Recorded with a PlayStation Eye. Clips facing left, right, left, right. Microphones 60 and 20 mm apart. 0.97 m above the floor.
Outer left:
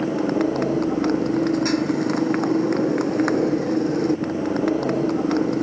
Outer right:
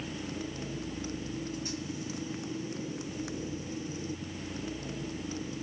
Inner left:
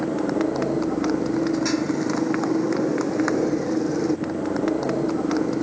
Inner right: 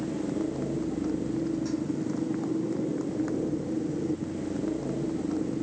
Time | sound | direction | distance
0.0 | a motorcycle | 65° left (ahead or behind) | ?